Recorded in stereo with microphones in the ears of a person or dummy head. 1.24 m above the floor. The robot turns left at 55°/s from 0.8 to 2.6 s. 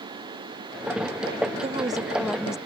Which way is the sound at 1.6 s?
145° right.